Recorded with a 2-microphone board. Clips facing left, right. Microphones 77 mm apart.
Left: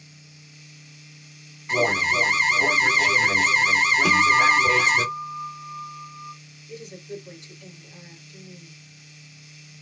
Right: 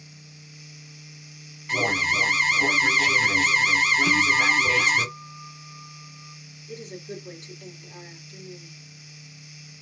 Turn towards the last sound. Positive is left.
turn(degrees=-45)  # may be behind; listen again after turning